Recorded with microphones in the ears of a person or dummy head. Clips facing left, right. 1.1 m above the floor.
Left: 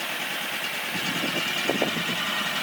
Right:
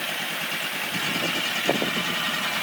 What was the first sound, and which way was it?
Only background noise.